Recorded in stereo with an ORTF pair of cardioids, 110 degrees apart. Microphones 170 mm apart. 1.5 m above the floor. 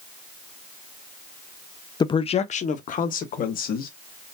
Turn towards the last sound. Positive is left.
turn(degrees=55)